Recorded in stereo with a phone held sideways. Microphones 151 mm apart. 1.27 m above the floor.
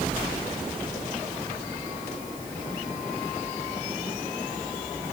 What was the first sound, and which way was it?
Only background noise.